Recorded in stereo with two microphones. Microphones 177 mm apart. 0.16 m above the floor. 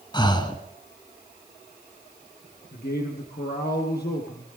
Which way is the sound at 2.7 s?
65° left (ahead or behind).